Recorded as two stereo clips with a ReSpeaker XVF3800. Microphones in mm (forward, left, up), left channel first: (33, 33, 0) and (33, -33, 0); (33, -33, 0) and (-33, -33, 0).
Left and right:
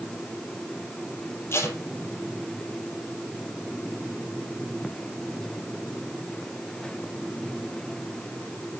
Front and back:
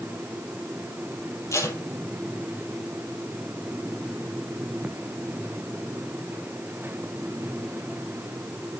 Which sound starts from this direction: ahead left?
Tape being pulled, at 1.5 s.